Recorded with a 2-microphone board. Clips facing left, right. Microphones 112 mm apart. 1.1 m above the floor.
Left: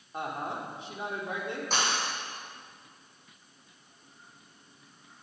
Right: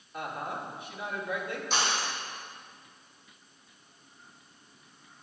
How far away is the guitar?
No guitar in this recording.